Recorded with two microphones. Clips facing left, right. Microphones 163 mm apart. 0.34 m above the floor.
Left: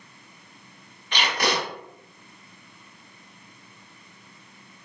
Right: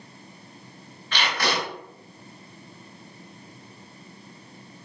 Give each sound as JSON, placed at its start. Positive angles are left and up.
{"t": 1.1, "sound": "tape being pulled", "side_deg": 20, "distance_m": 1.5}